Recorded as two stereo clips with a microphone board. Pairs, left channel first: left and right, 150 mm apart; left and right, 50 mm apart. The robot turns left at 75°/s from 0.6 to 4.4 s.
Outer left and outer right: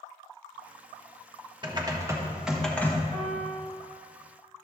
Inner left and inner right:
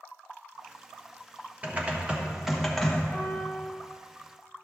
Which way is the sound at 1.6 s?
110° right.